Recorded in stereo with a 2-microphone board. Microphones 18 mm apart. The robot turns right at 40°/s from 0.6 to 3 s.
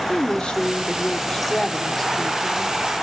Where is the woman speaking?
105° left, 1.9 m; by 2.8 s 170° right, 1.9 m.